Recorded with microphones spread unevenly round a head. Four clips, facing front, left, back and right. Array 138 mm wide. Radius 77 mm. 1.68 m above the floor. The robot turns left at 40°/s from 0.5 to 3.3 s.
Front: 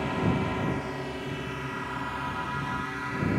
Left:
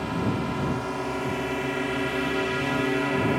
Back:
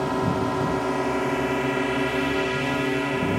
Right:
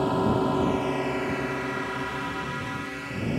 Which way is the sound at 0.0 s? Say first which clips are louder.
Right 4 dB, back 4 dB; 125° right.